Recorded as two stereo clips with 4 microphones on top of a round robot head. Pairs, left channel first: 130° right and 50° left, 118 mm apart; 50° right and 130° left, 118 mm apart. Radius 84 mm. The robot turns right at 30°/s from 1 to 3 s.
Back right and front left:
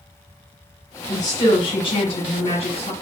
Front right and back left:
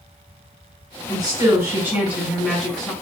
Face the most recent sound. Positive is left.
turn(degrees=-125)